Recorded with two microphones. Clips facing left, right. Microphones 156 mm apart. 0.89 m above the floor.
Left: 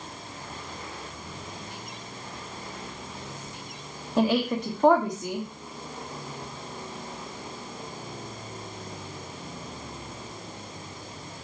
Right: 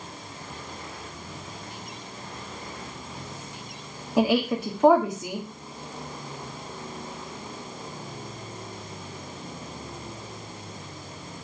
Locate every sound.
4.2 s a woman speaking: 5° right (ahead or behind), 1.2 m